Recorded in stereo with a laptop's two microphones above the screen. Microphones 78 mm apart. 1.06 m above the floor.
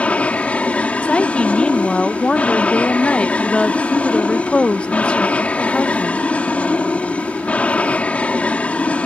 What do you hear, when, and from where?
0.0 s an aircraft: 20° left (ahead or behind)
1.0 s a woman speaking: 15° left (ahead or behind)